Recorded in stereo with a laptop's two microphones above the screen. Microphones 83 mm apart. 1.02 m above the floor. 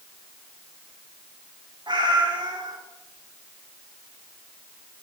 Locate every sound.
1.9 s a cat meowing: 65° right (ahead or behind), 1.0 m